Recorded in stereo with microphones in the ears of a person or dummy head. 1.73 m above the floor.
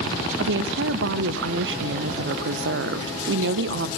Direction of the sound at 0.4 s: 75° right (ahead or behind).